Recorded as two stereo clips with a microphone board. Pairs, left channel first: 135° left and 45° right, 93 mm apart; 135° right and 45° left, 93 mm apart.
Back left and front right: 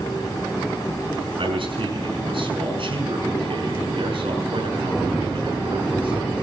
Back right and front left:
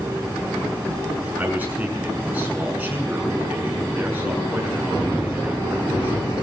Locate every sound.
1.4 s a man speaking: 30° right, 6.5 m